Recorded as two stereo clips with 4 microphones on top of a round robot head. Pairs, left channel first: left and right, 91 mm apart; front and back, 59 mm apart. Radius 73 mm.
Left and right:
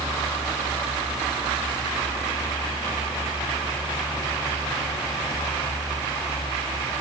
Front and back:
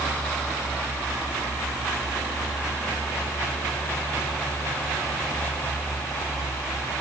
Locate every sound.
Only background noise.